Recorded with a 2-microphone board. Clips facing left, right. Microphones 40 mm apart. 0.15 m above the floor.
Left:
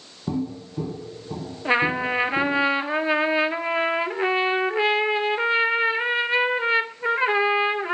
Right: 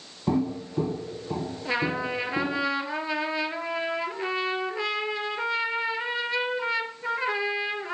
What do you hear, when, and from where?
0.3 s footsteps: 40° right (ahead or behind), 1.0 m; by 2.6 s 30° right (ahead or behind), 3 m
1.6 s a trumpet: 35° left (ahead or behind), 0.7 m